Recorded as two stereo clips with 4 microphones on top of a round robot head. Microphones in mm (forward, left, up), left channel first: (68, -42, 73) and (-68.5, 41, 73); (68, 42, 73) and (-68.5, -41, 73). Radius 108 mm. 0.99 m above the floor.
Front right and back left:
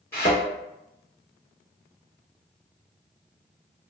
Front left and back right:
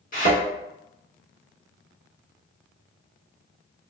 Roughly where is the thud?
Ahead left.